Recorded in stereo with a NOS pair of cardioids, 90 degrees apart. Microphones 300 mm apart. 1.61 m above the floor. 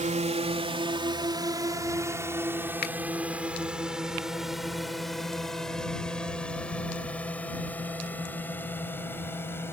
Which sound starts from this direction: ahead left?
A finger snap, at 2.8 s.